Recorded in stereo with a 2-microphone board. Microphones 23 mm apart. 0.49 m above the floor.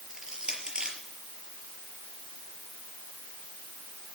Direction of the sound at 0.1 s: 35° right (ahead or behind).